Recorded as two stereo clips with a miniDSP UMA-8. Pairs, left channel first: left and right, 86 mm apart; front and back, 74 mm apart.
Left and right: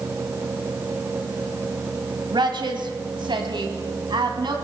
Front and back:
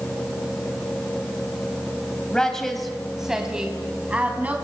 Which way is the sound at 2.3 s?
80° right.